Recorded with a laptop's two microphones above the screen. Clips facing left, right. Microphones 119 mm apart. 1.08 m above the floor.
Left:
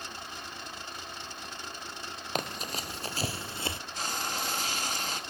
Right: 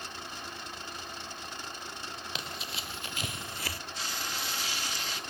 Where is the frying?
50° left (ahead or behind), 2 m.